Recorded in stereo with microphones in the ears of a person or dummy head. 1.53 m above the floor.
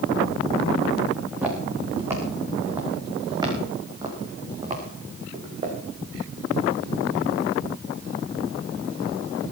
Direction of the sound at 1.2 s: 5° right (ahead or behind).